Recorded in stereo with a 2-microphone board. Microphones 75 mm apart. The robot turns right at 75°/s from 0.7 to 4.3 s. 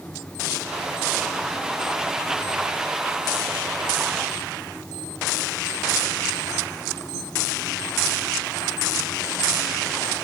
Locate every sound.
Only background noise.